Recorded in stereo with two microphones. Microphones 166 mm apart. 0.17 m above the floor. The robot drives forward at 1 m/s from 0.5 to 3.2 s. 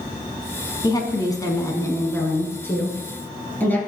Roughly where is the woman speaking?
Left.